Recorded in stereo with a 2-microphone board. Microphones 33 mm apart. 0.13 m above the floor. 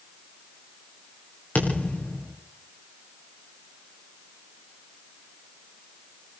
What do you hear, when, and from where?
1.6 s a thud: 50° left (ahead or behind), 8 m